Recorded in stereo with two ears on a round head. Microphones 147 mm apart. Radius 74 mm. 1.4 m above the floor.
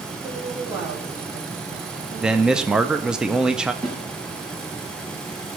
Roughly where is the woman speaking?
Centre.